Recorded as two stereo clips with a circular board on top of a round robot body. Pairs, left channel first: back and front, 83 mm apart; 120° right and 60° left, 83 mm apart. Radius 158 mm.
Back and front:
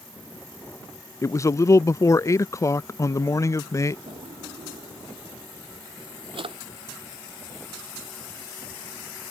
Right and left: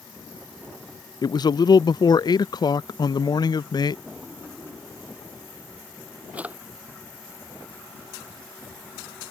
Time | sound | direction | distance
1.2 | a man speaking | 135° right | ?
4.1 | a drawer | 15° right | ?